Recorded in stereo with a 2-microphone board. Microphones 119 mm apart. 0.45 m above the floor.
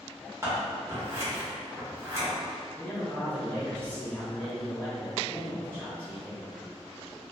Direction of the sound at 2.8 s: 10° left (ahead or behind).